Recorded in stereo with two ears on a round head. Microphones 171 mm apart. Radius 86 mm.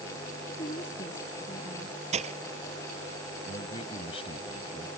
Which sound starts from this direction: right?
Breaking glass, at 2.1 s.